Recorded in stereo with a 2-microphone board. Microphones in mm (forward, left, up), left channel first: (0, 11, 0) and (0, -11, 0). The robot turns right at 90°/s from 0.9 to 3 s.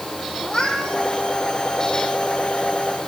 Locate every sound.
0.4 s a cat meowing: 40° left (ahead or behind), 4.5 m; by 1.0 s 25° left (ahead or behind), 4.5 m